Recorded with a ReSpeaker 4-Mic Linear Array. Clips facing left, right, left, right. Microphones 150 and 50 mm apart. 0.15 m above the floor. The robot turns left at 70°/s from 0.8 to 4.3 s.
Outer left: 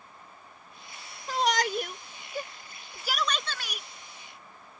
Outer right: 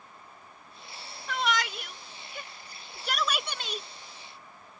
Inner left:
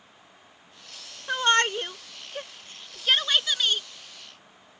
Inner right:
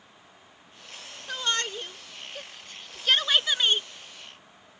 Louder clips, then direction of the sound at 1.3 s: Outer left 4 dB, inner left 8 dB; 35° left (ahead or behind).